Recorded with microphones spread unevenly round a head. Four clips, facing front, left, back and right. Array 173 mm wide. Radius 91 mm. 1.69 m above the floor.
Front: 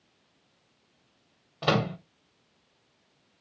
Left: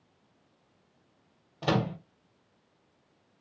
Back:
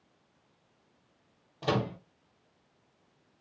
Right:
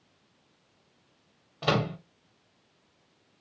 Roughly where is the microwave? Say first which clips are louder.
Right 1 dB, front 4 dB; ahead.